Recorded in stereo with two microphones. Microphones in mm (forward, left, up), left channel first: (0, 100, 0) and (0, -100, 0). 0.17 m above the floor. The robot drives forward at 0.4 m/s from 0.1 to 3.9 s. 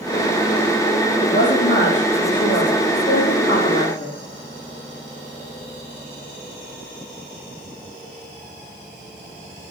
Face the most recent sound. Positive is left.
turn(degrees=80)